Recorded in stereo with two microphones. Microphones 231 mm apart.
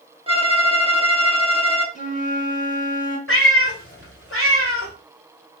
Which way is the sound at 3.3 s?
65° left (ahead or behind).